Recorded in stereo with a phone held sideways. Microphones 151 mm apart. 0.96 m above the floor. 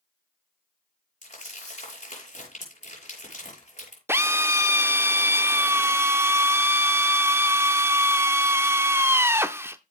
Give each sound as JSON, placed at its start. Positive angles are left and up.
{"t": 1.2, "sound": "crumpling", "side_deg": 55, "distance_m": 6.5}
{"t": 4.1, "sound": "a drill", "side_deg": -15, "distance_m": 0.6}